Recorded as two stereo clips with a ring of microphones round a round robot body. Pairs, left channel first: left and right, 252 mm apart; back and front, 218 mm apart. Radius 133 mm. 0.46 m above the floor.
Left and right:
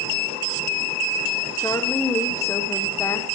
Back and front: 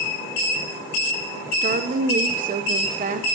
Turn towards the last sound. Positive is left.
turn(degrees=20)